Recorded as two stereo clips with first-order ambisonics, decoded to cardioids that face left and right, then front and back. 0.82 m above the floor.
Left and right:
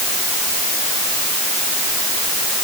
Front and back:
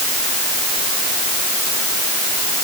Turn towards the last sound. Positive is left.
No sound to turn to.